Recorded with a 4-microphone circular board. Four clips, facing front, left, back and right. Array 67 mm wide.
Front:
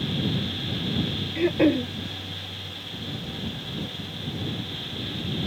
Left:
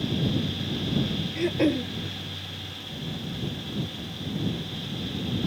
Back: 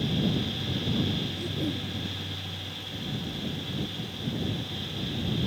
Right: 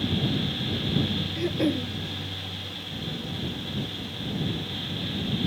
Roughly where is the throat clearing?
Ahead.